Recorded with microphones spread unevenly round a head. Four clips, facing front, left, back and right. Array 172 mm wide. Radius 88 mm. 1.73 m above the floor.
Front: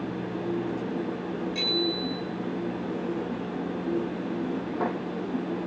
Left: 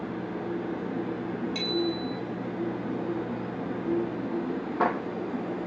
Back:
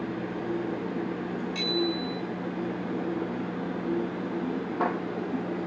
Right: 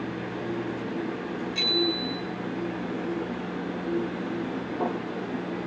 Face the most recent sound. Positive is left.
turn(degrees=105)